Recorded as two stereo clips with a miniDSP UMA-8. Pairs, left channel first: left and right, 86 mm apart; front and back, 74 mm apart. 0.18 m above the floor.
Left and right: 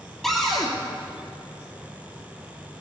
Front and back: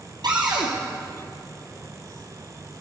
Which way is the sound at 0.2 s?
175° left.